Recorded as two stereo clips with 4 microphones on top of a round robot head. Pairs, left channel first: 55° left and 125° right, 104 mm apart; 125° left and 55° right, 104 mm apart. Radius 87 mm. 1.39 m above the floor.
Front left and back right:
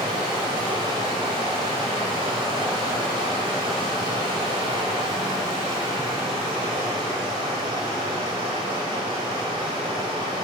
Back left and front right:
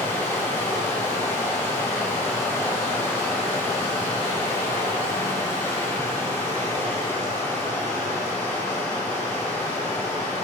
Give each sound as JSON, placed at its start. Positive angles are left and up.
{"t": 0.0, "sound": "running water", "azimuth_deg": -165, "distance_m": 1.5}